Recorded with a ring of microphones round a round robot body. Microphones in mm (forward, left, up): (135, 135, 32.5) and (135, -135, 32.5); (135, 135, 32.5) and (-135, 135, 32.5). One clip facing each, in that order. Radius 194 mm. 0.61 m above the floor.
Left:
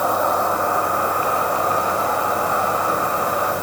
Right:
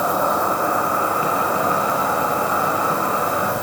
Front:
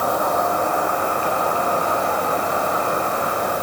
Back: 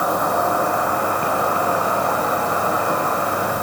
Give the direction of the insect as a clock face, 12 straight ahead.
4 o'clock.